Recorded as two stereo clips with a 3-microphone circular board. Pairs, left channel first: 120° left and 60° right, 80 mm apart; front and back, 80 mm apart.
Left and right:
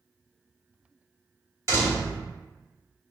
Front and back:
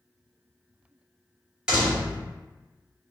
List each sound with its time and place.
1.7 s a door slam: 105° right, 1.3 m